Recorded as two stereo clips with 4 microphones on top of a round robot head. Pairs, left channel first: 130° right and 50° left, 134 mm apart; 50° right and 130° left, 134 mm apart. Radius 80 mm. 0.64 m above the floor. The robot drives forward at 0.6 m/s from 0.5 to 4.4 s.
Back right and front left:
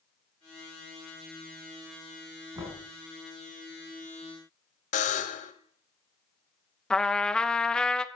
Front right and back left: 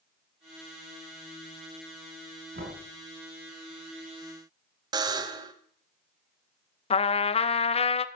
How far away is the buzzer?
About 1.1 m.